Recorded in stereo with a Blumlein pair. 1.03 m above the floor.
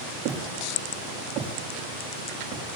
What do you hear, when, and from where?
0.2 s footsteps: 35° right, 6.5 m